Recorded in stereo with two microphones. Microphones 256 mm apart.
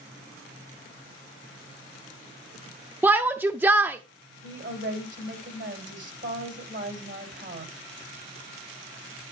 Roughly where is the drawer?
I don't hear a drawer.